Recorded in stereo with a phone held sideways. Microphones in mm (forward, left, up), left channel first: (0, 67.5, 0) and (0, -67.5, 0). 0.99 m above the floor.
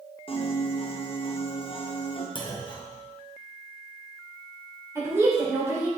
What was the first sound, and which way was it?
A piano, 45° left (ahead or behind).